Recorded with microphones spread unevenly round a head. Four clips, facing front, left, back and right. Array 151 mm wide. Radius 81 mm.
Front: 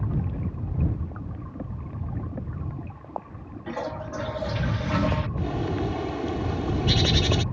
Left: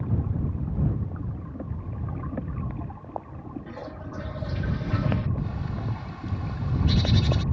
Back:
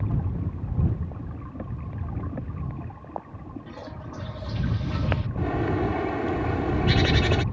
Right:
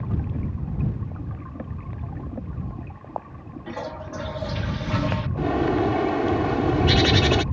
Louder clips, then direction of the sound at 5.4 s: Right 13 dB, back 2 dB; 100° right.